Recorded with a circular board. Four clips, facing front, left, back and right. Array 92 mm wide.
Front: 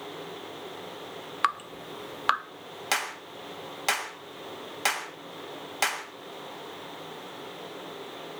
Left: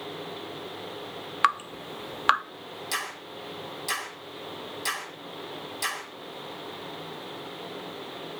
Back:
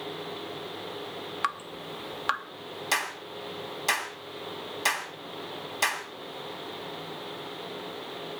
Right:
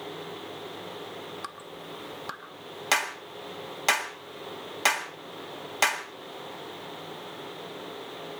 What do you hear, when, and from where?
1.4 s dripping: 75° left, 0.8 m
2.9 s a clap: 65° right, 5.5 m